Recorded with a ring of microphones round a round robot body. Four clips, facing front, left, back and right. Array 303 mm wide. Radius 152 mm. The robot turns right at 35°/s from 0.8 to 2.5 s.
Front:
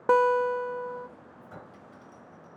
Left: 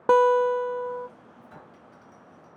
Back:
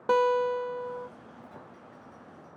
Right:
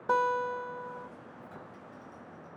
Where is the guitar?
75° left, 0.7 m; by 1.1 s 85° left, 0.7 m.